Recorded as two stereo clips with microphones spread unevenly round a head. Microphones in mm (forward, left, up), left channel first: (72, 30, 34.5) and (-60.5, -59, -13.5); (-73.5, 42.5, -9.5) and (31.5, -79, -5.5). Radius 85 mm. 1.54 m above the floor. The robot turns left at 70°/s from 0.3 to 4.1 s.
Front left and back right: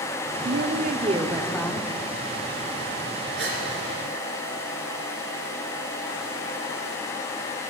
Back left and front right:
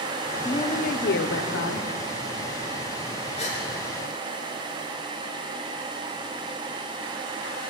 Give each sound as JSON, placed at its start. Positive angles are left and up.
{"t": 0.5, "sound": "a woman speaking", "azimuth_deg": -165, "distance_m": 0.8}
{"t": 3.4, "sound": "a gasp", "azimuth_deg": 180, "distance_m": 3.5}